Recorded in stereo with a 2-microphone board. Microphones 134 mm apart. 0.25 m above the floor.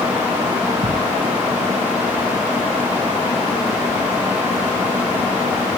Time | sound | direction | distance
0.8 | a thud | 50° right (ahead or behind) | ?